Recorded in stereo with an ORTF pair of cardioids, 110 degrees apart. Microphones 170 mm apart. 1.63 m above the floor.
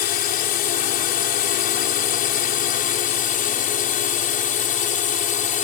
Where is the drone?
65° left; by 5.6 s 50° left.